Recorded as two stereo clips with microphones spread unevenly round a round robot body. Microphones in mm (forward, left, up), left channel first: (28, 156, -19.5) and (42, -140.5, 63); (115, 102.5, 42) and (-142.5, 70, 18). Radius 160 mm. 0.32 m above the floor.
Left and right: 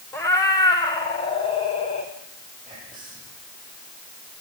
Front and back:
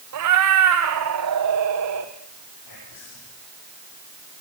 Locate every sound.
0.1 s a cat meowing: 175° left, 2 m; by 2.1 s 165° left, 3 m
2.6 s whispering: 5° left, 10 m